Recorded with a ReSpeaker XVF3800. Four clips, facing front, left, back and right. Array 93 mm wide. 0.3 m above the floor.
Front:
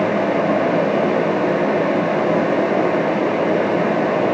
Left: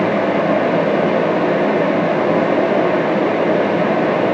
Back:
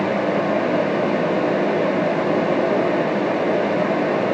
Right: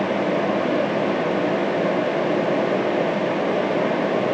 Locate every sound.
Only background noise.